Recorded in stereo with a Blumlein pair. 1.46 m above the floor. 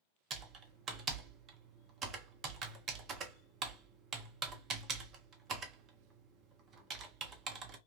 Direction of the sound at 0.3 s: 30° right.